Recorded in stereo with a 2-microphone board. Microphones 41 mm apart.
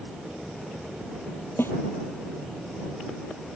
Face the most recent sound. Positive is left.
turn(degrees=65)  # may be behind; listen again after turning